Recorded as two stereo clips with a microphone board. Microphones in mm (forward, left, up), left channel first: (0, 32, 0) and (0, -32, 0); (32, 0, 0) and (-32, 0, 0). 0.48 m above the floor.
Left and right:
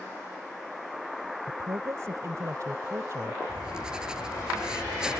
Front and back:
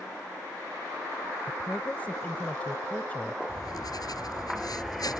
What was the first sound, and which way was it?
A woman speaking, 65° right.